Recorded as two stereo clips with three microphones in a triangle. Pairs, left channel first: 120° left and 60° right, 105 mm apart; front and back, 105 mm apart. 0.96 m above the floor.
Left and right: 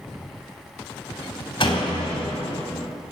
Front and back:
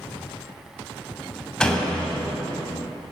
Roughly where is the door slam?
Left.